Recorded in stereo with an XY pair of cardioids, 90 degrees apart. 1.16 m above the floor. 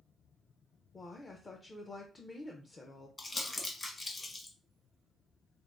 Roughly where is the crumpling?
Ahead left.